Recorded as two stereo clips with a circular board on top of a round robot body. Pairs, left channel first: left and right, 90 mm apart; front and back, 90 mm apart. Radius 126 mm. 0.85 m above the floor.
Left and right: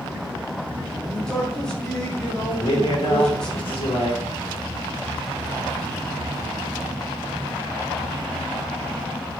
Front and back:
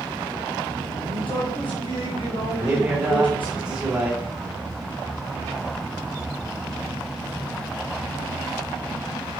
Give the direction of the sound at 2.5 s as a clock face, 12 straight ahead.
9 o'clock.